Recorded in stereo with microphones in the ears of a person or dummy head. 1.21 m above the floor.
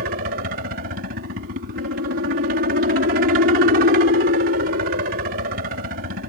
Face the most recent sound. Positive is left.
turn(degrees=-50)  # may be behind; listen again after turning